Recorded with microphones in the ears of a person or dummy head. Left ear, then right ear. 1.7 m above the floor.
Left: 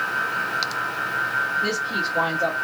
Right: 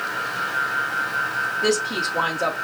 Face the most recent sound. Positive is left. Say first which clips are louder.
# right 2 dB
turn(degrees=-25)  # may be behind; listen again after turning